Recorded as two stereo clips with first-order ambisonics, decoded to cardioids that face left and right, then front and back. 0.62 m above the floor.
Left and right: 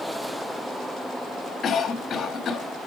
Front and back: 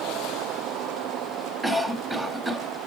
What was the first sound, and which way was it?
A cough, 100° left.